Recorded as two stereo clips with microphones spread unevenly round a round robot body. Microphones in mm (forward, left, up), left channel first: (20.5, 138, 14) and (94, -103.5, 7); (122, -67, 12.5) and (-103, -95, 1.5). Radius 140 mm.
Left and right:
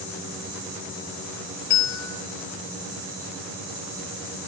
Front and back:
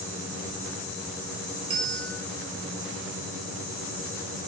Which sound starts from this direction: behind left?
A bell, at 1.7 s.